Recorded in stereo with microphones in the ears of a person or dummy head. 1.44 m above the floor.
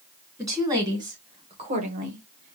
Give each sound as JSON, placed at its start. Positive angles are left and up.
{"t": 0.4, "sound": "a woman speaking", "side_deg": -15, "distance_m": 1.8}